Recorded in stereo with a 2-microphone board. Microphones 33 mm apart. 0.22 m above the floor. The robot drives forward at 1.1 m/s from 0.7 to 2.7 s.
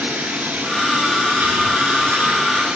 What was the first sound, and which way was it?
Running water, 55° right (ahead or behind).